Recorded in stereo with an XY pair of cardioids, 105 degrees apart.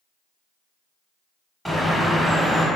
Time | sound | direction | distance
1.6 | a bird | 5° right | 1.1 m